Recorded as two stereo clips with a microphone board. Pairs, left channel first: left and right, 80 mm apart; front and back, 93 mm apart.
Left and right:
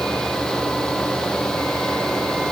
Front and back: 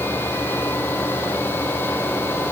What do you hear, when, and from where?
Only background noise.